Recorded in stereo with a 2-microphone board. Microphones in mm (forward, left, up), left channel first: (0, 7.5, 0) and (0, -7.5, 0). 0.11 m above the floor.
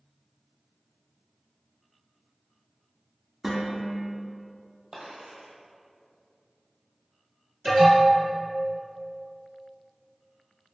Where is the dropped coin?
65° right (ahead or behind), 1.0 m.